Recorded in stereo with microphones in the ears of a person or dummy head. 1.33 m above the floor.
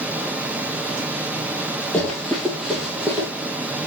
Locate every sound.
0.0 s a fan: 10° right (ahead or behind), 0.8 m
1.9 s running footsteps: 5° left (ahead or behind), 2.5 m; by 3.3 s 10° right (ahead or behind), 3.5 m